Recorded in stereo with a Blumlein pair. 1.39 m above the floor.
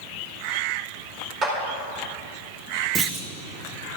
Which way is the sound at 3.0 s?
20° right.